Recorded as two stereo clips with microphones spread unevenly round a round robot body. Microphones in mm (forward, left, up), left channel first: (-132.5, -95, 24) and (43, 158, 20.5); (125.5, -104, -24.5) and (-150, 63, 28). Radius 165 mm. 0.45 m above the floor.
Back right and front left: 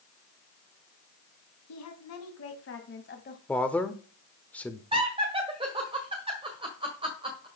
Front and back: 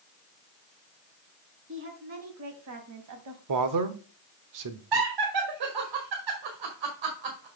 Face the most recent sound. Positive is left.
turn(degrees=125)